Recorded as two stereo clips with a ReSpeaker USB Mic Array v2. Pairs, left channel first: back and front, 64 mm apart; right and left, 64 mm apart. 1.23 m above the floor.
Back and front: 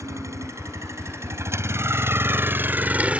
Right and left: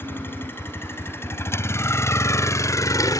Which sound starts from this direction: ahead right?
A vehicle, at 0.0 s.